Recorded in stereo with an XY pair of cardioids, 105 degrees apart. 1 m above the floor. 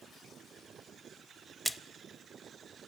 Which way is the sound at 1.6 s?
Straight ahead.